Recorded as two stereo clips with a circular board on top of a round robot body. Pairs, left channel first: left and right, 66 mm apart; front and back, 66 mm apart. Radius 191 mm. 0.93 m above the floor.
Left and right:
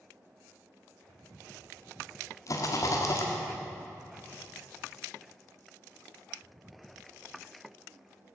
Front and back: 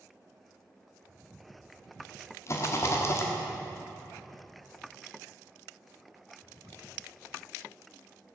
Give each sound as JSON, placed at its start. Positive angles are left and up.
{"t": 2.5, "sound": "a rattle", "azimuth_deg": 50, "distance_m": 1.3}